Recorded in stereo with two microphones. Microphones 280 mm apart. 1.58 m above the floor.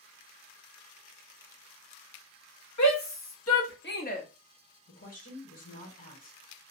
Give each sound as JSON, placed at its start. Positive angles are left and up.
{"t": 2.8, "sound": "a shout", "side_deg": 75, "distance_m": 1.0}
{"t": 4.9, "sound": "a woman speaking", "side_deg": 60, "distance_m": 1.2}